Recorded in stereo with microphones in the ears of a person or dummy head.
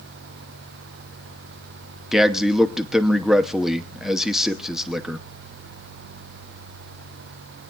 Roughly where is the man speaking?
Centre.